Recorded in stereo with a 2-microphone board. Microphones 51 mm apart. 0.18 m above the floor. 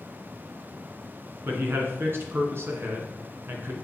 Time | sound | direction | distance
1.4 | a man speaking | 50° right (ahead or behind) | 1.8 m